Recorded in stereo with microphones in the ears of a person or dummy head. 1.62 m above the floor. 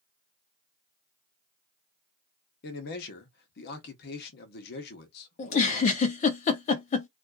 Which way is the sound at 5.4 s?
45° left (ahead or behind).